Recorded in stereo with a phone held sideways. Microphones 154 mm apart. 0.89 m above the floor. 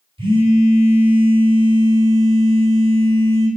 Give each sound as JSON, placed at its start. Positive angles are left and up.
{"t": 0.2, "sound": "a phone buzzing", "side_deg": -35, "distance_m": 1.6}